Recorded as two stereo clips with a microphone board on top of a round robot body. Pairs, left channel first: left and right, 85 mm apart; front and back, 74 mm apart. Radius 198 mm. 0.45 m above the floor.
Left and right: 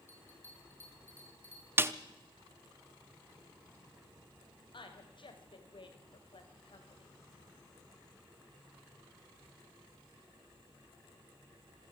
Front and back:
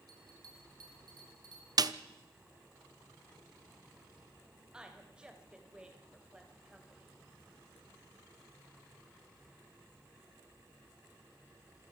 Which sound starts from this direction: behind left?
A bell, at 0.1 s.